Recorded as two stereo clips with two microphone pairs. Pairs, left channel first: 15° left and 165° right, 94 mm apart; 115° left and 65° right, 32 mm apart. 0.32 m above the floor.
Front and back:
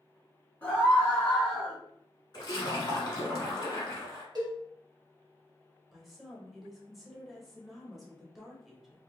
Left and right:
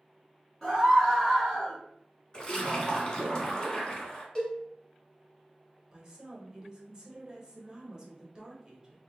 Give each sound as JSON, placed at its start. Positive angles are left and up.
{"t": 0.6, "sound": "a scream", "azimuth_deg": 65, "distance_m": 1.1}
{"t": 2.3, "sound": "a splash", "azimuth_deg": 55, "distance_m": 0.8}
{"t": 4.3, "sound": "a cowbell", "azimuth_deg": 175, "distance_m": 1.0}
{"t": 5.9, "sound": "a woman speaking", "azimuth_deg": -90, "distance_m": 0.9}